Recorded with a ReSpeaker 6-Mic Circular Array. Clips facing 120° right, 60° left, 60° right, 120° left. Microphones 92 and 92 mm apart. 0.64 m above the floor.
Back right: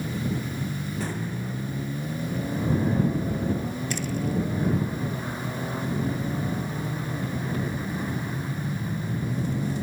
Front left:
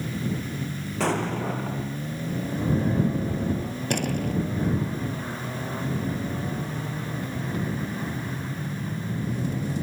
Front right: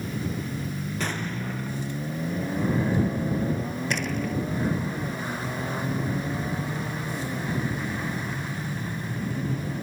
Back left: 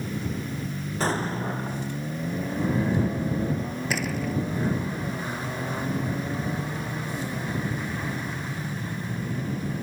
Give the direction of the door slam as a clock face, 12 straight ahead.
11 o'clock.